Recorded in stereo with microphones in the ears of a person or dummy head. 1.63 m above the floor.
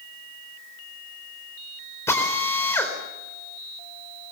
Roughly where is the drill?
Centre.